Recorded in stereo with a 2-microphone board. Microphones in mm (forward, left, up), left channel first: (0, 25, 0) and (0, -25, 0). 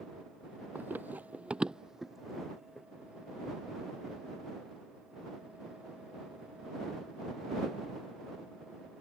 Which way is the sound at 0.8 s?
40° right (ahead or behind).